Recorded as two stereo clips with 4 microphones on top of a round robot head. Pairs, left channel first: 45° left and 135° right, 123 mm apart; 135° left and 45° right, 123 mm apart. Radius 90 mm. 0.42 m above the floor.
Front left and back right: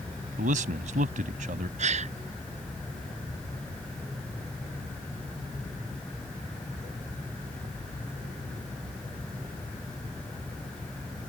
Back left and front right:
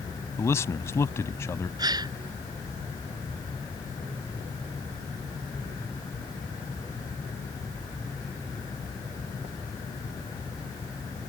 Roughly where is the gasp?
Right.